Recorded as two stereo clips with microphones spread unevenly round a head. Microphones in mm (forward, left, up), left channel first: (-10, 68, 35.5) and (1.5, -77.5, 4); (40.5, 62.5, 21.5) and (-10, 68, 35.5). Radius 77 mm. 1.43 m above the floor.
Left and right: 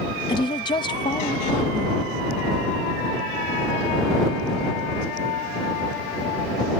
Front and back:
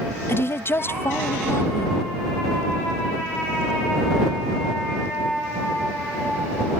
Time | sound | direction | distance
0.3 | a woman speaking | 30° left | ?